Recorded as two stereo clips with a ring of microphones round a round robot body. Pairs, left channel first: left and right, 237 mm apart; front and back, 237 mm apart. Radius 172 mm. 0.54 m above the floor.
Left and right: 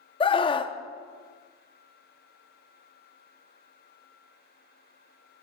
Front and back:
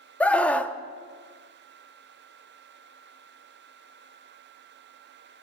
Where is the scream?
75° left, 0.6 m.